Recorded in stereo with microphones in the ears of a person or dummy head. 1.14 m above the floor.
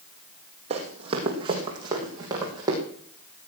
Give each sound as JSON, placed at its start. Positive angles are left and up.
{"t": 0.7, "sound": "running footsteps", "side_deg": -35, "distance_m": 3.0}